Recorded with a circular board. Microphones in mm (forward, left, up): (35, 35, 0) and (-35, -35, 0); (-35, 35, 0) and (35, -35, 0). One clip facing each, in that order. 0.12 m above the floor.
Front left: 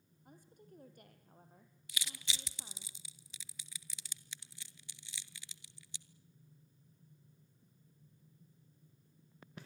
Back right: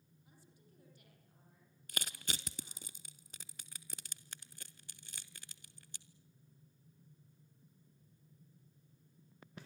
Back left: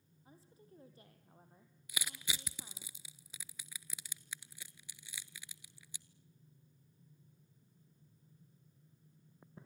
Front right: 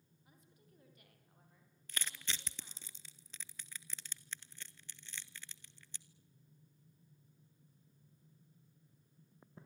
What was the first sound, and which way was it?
A woman speaking, 80° left.